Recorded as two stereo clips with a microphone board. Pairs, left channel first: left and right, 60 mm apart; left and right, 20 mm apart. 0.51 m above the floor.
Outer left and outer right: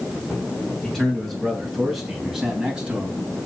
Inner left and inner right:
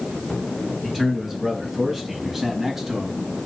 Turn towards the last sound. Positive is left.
turn(degrees=-20)  # may be behind; listen again after turning